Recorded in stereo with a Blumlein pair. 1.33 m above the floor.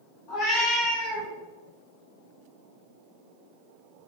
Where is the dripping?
I don't hear dripping.